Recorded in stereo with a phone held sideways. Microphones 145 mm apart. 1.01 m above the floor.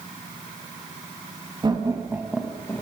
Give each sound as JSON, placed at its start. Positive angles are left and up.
{"t": 1.6, "sound": "laughter", "side_deg": -30, "distance_m": 1.7}